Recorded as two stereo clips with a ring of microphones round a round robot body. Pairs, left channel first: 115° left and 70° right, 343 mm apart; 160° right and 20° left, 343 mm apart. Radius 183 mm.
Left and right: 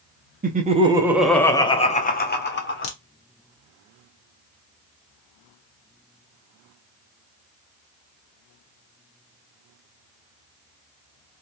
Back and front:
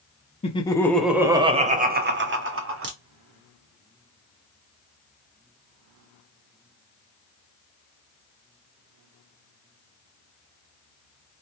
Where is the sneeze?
No sneeze in this recording.